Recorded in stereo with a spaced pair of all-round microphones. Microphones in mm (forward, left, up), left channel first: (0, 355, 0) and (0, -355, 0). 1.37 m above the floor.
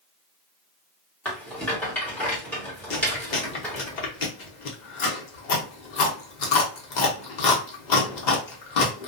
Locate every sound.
1.2 s a rattle: centre (ahead or behind), 1.4 m
2.9 s chewing: 85° left, 0.8 m